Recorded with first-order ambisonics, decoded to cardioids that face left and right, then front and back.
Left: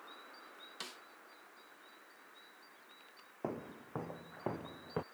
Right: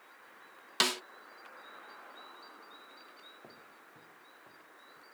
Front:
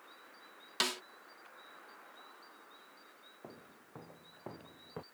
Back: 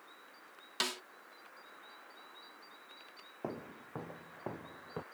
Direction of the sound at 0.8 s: 85° right.